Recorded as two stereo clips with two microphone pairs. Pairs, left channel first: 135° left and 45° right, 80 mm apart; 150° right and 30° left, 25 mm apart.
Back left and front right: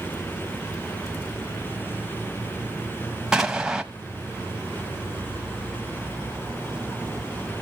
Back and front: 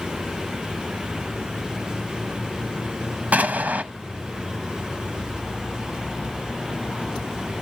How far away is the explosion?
About 0.9 m.